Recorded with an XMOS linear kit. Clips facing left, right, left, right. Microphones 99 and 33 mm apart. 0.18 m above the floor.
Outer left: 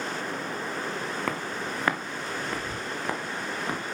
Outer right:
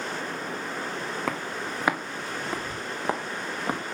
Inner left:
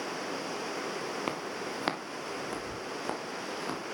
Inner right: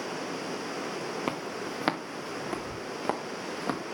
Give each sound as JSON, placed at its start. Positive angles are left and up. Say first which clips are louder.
{"t": 1.3, "sound": "footsteps", "louder": "even, inner right 2 dB", "side_deg": -5, "distance_m": 1.7}